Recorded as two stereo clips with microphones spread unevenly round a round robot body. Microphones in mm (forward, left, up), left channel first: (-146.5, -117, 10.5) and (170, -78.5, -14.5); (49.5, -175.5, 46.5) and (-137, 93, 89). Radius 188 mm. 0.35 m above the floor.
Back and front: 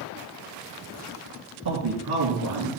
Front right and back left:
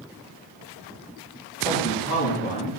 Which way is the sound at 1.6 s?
25° left.